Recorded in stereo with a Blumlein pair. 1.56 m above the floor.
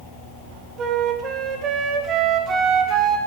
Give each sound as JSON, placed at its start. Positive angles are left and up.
{"t": 0.8, "sound": "a flute", "azimuth_deg": -30, "distance_m": 1.2}